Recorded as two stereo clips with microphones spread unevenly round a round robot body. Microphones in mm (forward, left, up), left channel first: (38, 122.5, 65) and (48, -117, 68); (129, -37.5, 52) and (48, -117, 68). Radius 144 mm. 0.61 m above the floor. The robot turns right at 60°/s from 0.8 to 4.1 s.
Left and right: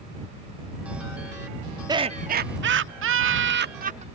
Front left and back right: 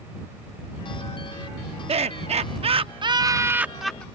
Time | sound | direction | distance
1.9 | laughter | 160° right | ?